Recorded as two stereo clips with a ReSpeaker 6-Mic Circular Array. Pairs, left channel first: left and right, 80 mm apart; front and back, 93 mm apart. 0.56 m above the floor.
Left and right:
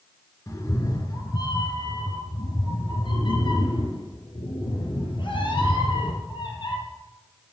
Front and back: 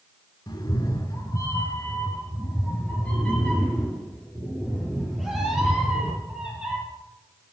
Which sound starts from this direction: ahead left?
A cat meowing, at 0.5 s.